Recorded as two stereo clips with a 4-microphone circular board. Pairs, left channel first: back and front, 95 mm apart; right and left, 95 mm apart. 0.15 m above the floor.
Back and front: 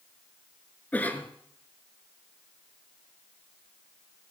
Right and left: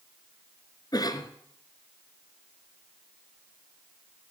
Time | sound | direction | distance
0.9 | a cough | 115° right | 1.6 m